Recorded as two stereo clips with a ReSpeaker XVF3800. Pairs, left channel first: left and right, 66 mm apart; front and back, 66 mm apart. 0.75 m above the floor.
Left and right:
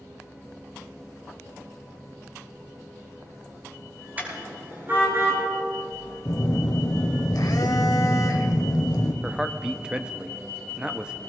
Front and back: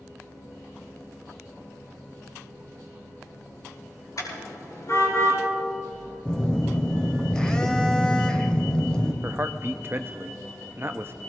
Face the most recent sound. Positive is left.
turn(degrees=-160)